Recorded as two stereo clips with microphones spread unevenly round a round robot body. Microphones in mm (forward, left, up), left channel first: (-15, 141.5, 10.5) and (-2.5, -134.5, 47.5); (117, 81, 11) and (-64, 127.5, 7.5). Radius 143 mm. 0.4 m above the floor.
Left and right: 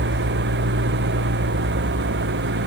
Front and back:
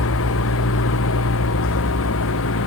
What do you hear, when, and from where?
0.0 s an engine running: 35° right